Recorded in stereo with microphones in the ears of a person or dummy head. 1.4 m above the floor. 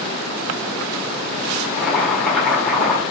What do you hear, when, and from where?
1.6 s boiling: 5° left (ahead or behind), 1.4 m